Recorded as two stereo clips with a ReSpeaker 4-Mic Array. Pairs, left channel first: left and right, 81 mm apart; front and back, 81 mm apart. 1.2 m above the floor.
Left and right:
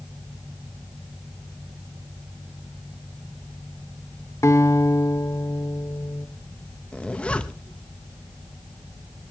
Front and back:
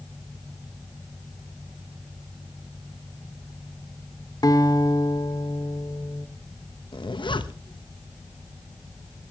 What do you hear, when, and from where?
4.4 s a guitar: 35° left, 1.7 m
6.9 s a zipper: 15° left, 1.0 m